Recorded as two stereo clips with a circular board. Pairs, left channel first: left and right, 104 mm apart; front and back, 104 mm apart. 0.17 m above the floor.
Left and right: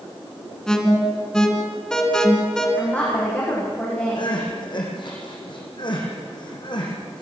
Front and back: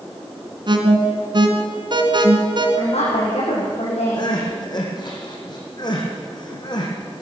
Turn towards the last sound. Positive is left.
turn(degrees=50)